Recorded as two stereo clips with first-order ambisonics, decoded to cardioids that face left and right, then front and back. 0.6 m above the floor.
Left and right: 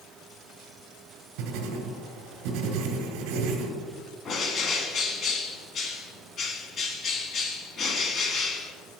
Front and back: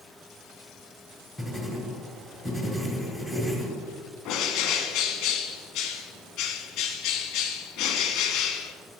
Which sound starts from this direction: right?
Writing, at 1.4 s.